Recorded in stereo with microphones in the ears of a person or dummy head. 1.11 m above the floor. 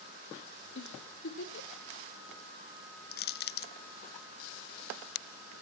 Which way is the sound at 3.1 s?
50° left (ahead or behind).